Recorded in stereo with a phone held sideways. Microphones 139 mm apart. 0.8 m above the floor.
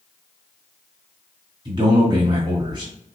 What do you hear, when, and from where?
1.6 s a man speaking: 35° right (ahead or behind), 1.9 m